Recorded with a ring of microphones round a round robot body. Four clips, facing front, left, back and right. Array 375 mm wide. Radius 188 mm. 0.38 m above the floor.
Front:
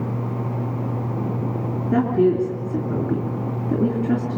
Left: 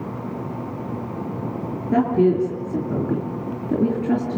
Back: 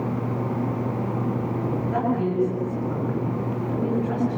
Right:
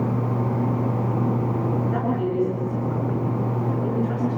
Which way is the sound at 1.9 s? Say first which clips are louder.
Left 6 dB, front 8 dB; 50° left.